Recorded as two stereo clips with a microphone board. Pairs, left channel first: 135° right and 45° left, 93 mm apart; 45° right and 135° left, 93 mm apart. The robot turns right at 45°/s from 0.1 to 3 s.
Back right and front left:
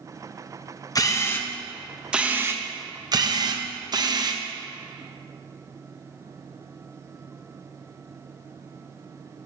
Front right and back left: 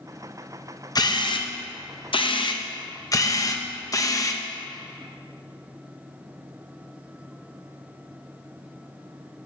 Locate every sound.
0.9 s a camera shutter: 85° right, 0.6 m; by 4.4 s 5° left, 0.6 m